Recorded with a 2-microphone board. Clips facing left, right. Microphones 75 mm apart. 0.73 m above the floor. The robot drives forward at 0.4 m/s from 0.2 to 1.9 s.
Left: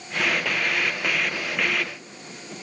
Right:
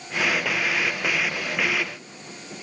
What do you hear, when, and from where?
Only background noise.